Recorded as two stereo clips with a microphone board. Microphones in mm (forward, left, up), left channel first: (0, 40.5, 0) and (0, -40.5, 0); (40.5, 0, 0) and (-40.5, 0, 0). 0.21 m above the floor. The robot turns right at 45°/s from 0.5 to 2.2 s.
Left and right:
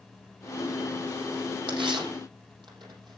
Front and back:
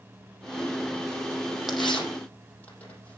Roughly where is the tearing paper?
Right.